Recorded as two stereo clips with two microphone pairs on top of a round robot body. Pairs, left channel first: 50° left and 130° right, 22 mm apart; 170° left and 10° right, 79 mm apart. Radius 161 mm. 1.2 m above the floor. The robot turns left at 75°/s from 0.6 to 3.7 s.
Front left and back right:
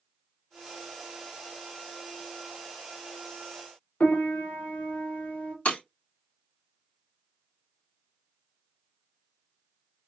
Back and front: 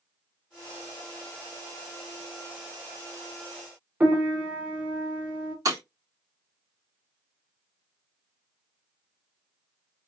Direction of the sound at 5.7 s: 35° left.